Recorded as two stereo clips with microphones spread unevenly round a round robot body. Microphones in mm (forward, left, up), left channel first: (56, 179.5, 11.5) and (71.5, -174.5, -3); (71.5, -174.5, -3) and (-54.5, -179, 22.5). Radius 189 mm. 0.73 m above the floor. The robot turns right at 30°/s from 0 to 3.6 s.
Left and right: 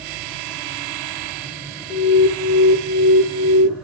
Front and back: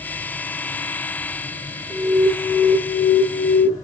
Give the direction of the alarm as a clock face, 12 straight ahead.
9 o'clock.